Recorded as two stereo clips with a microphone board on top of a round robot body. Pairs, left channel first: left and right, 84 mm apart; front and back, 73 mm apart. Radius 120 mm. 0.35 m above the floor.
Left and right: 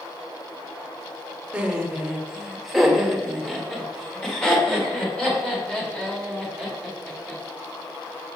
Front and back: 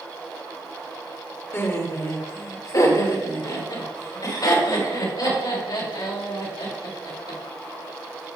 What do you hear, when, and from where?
1.5 s laughter: 25° right, 1.7 m; by 7.4 s 15° left, 5.5 m